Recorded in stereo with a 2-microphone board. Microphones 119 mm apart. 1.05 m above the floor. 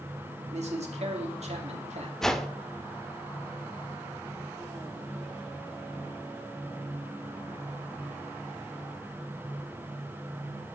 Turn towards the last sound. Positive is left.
turn(degrees=5)  # may be behind; listen again after turning